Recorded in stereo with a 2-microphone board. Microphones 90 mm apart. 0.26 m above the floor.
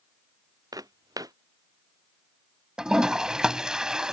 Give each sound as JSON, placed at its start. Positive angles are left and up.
{"t": 0.7, "sound": "footsteps", "side_deg": -45}
{"t": 2.8, "sound": "a toilet flushing", "side_deg": -10}